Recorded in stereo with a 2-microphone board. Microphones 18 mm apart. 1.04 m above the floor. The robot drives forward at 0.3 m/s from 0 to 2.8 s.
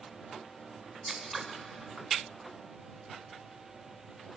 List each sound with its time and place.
1.1 s scissors: centre (ahead or behind), 2.5 m